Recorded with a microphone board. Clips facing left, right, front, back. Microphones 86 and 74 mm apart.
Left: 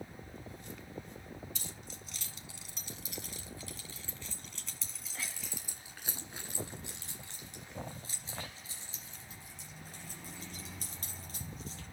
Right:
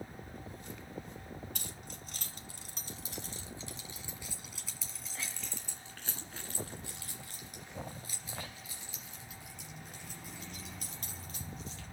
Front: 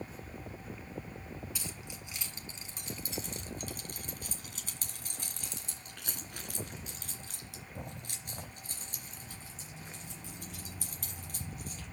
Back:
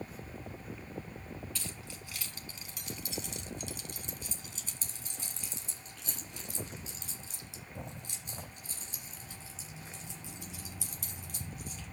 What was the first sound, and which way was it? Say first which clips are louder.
Keys jangling: right 1 dB, even; 75° right.